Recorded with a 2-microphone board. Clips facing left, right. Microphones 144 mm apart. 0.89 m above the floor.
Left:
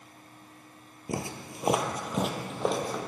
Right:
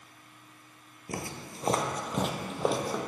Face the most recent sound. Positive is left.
turn(degrees=-5)  # may be behind; listen again after turning